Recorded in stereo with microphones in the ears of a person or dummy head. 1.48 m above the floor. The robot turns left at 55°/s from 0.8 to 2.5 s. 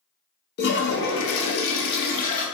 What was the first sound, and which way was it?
A toilet flushing, 125° left.